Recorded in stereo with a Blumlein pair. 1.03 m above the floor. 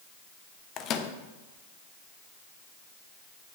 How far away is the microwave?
About 1.0 m.